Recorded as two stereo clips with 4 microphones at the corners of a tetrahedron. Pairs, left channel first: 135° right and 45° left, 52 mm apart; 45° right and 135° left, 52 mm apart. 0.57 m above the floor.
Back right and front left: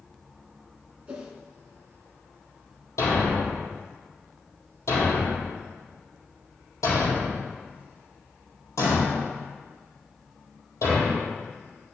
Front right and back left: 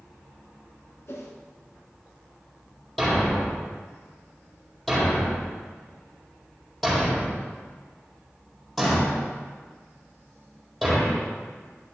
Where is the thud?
130° right, 4.5 m.